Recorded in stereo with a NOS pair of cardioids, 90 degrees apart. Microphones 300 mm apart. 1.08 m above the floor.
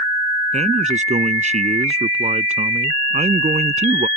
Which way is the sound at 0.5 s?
20° right.